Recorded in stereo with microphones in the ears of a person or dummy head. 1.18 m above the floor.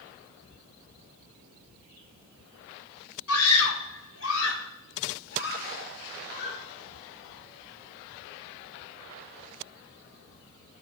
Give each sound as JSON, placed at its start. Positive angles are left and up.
{"t": 3.3, "sound": "a scream", "side_deg": 80, "distance_m": 2.5}